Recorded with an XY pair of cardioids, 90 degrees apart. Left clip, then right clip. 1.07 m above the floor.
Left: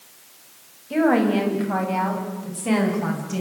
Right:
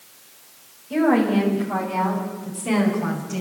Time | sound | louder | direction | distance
0.9 | a woman speaking | even | 25° left | 7 m